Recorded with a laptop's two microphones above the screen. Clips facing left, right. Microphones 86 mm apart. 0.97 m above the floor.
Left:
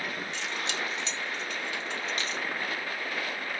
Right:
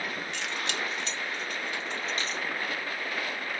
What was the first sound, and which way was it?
Keys jangling, 70° right (ahead or behind).